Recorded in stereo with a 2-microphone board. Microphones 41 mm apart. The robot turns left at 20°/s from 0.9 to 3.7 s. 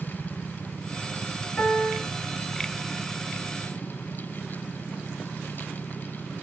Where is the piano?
40° left (ahead or behind), 2 m; by 2.0 s 45° left (ahead or behind), 2 m.